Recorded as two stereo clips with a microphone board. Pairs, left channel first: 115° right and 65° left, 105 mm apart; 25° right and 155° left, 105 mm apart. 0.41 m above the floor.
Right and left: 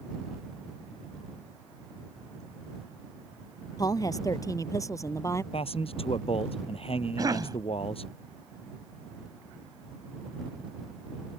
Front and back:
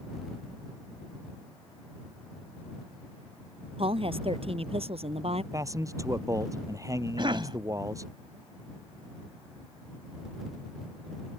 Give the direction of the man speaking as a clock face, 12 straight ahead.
5 o'clock.